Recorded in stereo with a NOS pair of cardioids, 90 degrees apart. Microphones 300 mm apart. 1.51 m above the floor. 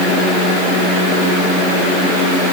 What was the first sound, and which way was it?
Only background noise.